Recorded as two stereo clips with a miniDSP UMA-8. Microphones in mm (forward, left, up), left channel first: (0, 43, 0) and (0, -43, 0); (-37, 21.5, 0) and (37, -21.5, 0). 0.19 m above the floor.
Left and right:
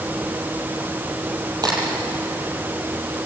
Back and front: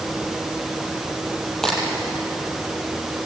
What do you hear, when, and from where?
1.6 s a crack: 125° right, 6 m